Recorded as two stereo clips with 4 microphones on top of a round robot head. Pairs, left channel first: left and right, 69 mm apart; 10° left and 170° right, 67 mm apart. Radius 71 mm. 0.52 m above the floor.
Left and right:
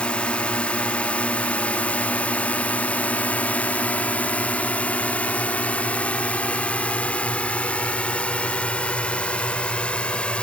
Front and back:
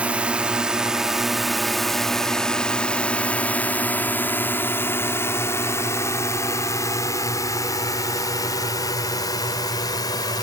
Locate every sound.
0.0 s a drone: 140° left; by 10.4 s 15° left